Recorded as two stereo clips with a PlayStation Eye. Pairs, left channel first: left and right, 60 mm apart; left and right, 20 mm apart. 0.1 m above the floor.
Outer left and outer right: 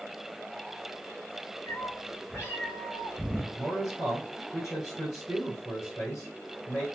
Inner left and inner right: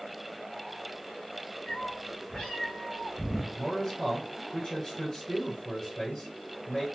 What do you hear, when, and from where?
1.7 s a cat meowing: 45° left (ahead or behind), 2.5 m; by 3.5 s 15° left (ahead or behind), 2.0 m
3.5 s a man speaking: 40° left (ahead or behind), 3 m